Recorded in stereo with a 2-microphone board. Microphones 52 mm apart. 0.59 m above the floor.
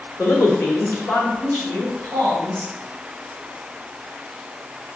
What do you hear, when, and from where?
0.2 s a man speaking: 60° left (ahead or behind), 1.3 m; by 2.7 s 35° left (ahead or behind), 3.5 m